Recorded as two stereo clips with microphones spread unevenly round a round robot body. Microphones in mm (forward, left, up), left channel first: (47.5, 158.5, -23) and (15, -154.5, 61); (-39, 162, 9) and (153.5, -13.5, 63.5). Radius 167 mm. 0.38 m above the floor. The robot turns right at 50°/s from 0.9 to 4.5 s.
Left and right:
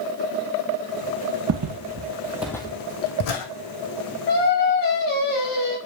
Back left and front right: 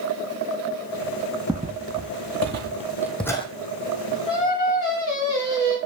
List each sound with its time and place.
1.5 s footsteps: 120° right, 0.7 m; by 3.5 s 65° left, 1.0 m
4.3 s singing: 70° left, 3 m; by 5.8 s 80° left, 3 m